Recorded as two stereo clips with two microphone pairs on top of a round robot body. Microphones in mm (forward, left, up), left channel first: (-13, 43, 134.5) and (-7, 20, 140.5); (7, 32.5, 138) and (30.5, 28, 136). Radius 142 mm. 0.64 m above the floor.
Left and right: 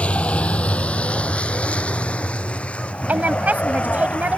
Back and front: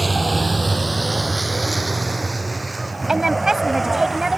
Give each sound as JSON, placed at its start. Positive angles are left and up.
{"t": 0.0, "sound": "a vehicle", "azimuth_deg": 75}
{"t": 3.1, "sound": "a woman speaking", "azimuth_deg": -90}